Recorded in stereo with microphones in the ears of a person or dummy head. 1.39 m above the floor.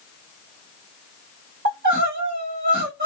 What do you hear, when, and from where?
1.6 s crying: 55° right (ahead or behind), 1.8 m